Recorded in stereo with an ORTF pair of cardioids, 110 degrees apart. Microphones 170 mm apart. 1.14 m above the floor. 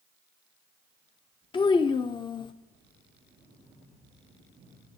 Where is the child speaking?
30° left, 0.5 m.